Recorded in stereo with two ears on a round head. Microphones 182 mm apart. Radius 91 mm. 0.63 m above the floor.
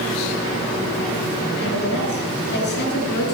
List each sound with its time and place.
1.6 s a woman speaking: 60° left (ahead or behind), 7.5 m